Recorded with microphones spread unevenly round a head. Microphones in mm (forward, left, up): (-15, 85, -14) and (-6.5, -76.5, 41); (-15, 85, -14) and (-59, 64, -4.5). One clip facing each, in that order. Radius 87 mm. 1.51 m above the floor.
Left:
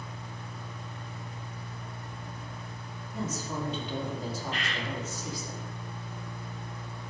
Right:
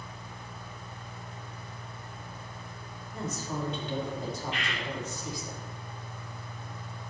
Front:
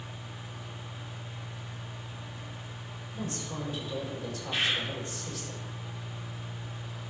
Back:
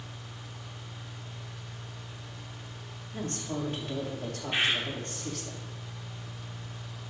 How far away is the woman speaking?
About 3.5 m.